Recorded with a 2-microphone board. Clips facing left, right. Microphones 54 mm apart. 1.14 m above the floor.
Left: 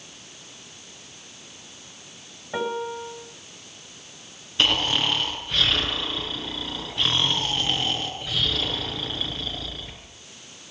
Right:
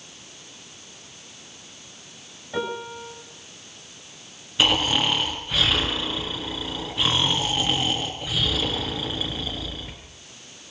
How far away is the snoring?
About 6 m.